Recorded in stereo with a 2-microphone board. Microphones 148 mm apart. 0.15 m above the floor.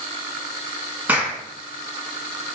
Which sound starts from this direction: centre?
A clap, at 1.1 s.